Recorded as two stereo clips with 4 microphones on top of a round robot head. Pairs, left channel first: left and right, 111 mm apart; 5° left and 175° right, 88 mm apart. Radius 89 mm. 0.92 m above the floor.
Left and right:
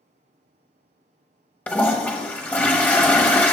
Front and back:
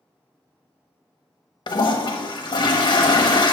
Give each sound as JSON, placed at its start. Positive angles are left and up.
{"t": 1.7, "sound": "a toilet flushing", "azimuth_deg": 20, "distance_m": 1.0}